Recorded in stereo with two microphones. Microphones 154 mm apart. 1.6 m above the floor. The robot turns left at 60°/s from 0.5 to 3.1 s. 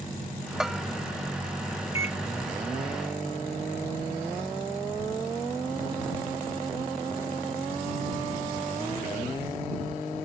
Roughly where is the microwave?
Left.